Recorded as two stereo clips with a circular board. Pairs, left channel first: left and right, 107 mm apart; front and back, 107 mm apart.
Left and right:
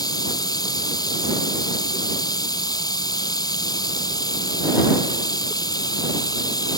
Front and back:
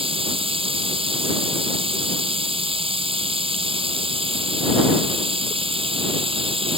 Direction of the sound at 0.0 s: 145° left.